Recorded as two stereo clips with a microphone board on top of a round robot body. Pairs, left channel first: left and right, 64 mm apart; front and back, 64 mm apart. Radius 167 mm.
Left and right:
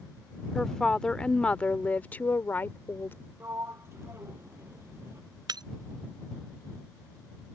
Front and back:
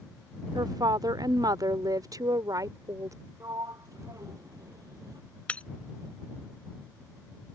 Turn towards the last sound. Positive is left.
turn(degrees=-70)